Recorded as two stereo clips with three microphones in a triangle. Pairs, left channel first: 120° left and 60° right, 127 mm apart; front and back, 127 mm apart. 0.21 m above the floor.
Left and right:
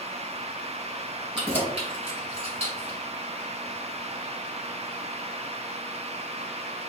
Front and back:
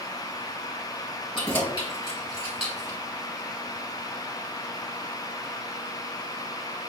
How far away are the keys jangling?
About 1.6 m.